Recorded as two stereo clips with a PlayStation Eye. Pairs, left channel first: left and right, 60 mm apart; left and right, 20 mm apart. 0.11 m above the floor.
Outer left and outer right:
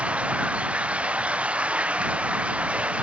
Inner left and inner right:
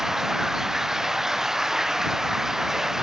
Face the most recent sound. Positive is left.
turn(degrees=-20)  # may be behind; listen again after turning